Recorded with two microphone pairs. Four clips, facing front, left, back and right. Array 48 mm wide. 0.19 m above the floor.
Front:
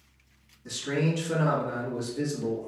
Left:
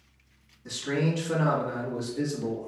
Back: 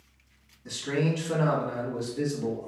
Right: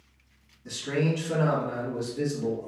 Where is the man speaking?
140° left, 1.0 m.